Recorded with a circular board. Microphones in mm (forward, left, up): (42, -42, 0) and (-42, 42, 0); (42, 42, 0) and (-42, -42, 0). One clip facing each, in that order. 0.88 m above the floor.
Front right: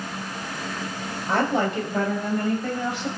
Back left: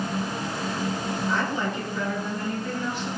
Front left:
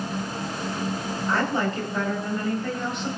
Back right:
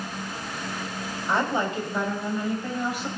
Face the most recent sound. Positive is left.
turn(degrees=-55)